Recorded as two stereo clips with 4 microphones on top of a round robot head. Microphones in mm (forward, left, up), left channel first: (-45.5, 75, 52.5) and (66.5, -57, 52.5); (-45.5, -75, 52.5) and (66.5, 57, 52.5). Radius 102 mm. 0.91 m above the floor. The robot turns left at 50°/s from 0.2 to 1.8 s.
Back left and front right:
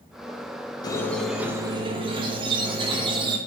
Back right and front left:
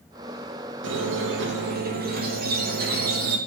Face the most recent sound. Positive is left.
turn(degrees=15)